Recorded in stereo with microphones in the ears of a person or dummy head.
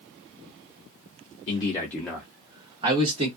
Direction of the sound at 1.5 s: 40° left (ahead or behind).